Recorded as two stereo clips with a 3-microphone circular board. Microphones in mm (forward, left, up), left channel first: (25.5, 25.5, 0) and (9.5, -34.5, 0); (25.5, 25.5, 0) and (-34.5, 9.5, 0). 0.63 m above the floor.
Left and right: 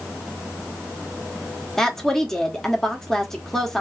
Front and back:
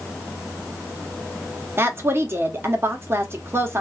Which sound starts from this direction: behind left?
A woman speaking, at 1.8 s.